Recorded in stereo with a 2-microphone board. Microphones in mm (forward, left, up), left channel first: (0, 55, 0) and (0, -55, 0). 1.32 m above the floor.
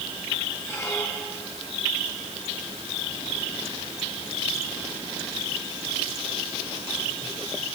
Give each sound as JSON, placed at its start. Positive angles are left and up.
{"t": 0.7, "sound": "a squeak", "side_deg": 25, "distance_m": 7.5}